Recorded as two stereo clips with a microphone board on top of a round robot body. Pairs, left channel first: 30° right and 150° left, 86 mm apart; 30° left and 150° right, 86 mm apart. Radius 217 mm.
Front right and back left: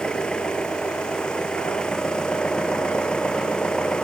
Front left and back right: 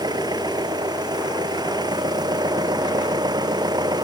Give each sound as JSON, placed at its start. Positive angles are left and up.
{"t": 0.0, "sound": "an engine running", "azimuth_deg": -110}